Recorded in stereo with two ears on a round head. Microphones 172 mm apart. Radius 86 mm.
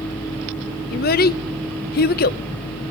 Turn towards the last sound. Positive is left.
turn(degrees=50)  # may be behind; listen again after turning